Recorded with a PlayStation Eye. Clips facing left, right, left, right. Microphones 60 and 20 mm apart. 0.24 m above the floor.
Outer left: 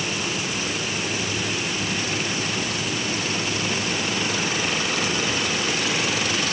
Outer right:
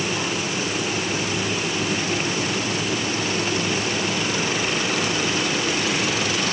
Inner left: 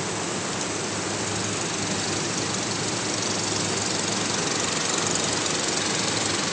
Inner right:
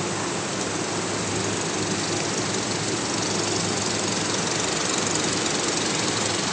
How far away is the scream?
I don't hear a scream.